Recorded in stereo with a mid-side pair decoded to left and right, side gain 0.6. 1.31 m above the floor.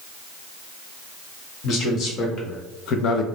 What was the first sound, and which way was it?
A man speaking, 55° left.